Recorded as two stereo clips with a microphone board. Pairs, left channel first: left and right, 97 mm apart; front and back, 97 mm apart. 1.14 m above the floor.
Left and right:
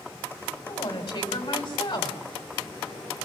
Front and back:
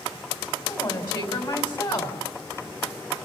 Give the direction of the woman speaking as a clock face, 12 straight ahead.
11 o'clock.